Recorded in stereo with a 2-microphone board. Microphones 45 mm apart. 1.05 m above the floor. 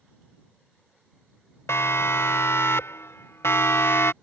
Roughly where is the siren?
Left.